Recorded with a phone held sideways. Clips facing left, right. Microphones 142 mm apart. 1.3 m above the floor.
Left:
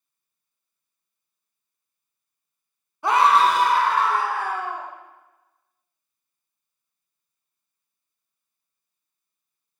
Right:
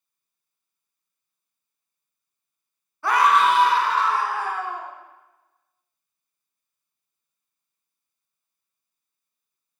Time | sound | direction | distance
3.0 | a scream | 15° left (ahead or behind) | 0.8 m